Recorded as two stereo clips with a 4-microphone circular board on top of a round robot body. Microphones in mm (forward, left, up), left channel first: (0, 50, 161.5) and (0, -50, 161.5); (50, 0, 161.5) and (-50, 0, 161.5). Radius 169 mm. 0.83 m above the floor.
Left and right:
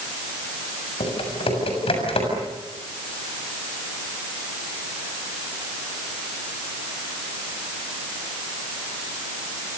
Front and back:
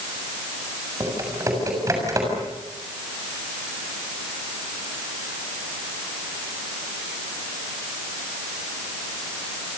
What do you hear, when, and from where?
1.0 s typing on a keyboard: 120° left, 7.5 m